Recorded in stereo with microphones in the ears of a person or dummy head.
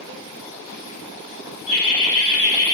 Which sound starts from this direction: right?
Laughter, at 1.7 s.